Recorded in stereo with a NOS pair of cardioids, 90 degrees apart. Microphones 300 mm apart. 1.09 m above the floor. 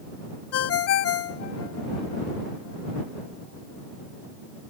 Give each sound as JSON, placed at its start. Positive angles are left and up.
{"t": 0.5, "sound": "a ringtone", "azimuth_deg": 60}